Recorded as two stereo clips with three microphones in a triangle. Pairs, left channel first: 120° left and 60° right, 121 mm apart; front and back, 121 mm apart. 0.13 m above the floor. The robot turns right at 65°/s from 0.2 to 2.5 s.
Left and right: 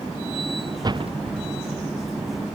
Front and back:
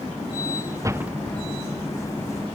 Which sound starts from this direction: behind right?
A door slam, at 0.8 s.